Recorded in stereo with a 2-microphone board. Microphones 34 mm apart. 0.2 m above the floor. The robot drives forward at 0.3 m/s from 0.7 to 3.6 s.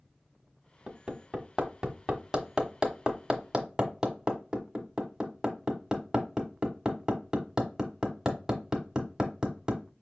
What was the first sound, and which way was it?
Hammering, 20° right (ahead or behind).